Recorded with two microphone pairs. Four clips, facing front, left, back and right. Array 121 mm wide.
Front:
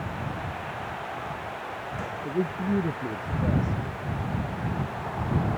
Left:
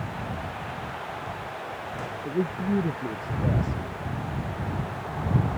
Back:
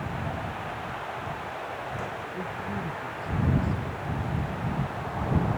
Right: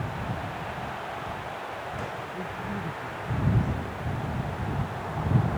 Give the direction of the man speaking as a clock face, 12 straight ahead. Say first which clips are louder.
Left 7 dB, front 6 dB; 10 o'clock.